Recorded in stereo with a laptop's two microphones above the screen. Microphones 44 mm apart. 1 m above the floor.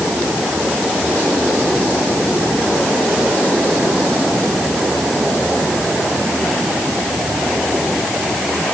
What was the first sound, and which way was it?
Only background noise.